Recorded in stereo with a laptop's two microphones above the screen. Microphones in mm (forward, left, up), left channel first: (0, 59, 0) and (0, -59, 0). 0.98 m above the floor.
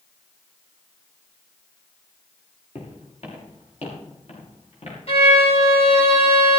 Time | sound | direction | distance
2.8 | footsteps | 60° left (ahead or behind) | 5 m
5.1 | a violin | 60° left (ahead or behind) | 4 m